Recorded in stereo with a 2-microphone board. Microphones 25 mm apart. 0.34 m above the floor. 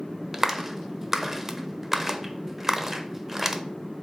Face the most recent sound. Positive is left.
turn(degrees=-15)  # may be behind; listen again after turning